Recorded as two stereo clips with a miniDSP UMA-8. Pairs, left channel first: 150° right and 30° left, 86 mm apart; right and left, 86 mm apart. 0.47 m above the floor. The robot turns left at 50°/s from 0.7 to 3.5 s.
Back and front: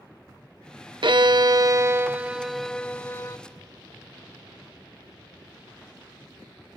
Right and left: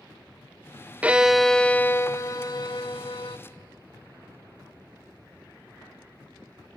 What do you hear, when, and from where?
1.0 s a violin: 15° left, 0.5 m; by 3.4 s 100° right, 0.5 m